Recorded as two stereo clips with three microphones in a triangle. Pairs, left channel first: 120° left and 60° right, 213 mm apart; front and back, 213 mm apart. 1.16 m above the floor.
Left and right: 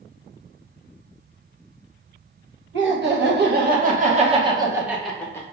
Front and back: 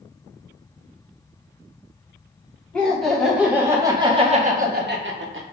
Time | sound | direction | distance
2.7 | laughter | 85° right | 1.3 m